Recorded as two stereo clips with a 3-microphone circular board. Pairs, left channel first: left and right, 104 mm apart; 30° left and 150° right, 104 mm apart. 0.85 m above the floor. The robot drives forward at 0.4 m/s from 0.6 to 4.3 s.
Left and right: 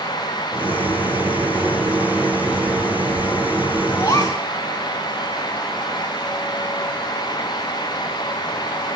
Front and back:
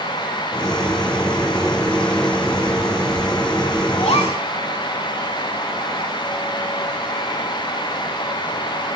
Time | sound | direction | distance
4.0 | a gasp | 35° left | 1.7 m